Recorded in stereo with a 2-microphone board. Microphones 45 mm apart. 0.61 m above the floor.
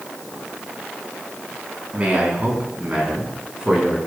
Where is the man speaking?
30° right (ahead or behind), 7 m; by 4.0 s 15° right (ahead or behind), 8 m.